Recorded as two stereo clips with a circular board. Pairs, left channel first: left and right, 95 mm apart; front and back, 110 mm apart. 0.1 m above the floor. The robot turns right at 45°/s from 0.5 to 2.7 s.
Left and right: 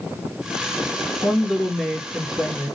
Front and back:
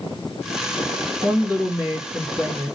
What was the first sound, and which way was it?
A woman speaking, 160° left.